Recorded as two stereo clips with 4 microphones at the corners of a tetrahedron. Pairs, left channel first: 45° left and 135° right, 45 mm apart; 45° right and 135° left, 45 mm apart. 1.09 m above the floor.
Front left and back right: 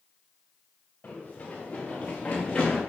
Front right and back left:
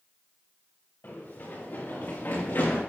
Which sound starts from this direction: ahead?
Running footsteps, at 1.0 s.